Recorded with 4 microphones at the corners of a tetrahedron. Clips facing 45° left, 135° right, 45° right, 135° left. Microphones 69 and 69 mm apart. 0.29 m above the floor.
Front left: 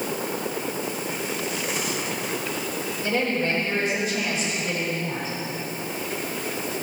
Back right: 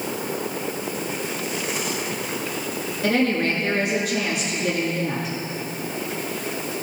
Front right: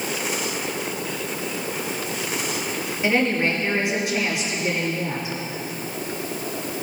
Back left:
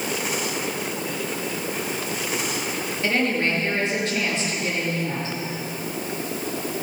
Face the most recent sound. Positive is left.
turn(degrees=-125)